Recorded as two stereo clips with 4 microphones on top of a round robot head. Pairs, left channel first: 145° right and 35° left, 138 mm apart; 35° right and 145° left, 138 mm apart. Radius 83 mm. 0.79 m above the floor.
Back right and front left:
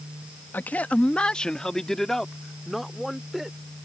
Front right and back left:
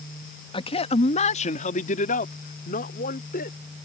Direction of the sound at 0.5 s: 70° right.